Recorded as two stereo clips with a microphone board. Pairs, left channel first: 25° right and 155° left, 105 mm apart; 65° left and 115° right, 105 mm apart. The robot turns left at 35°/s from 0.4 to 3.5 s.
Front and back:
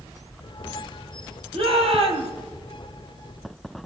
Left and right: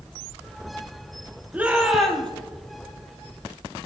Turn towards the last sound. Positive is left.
turn(degrees=105)